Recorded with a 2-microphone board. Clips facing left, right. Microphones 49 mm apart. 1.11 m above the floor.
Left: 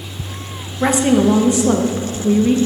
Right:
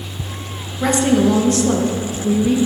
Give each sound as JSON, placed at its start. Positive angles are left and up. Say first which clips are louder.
{"t": 0.8, "sound": "a woman speaking", "louder": "left 1 dB", "side_deg": 15, "distance_m": 0.5}